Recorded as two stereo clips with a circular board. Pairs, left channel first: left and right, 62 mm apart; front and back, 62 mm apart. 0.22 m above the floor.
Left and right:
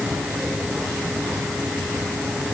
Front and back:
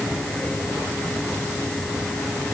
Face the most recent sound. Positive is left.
No sound to turn to.